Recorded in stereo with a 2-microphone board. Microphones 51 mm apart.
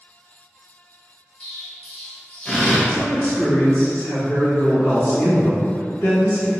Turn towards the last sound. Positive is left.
turn(degrees=45)  # may be behind; listen again after turning